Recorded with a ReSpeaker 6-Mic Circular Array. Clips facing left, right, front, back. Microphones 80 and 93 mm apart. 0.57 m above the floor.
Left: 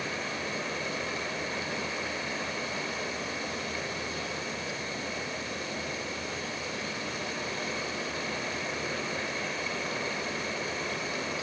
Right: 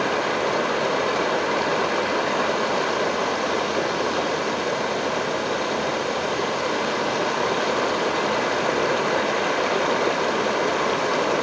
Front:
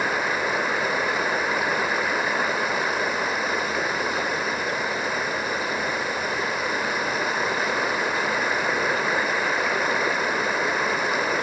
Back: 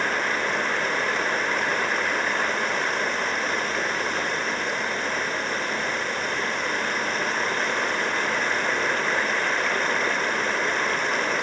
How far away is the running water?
About 0.9 m.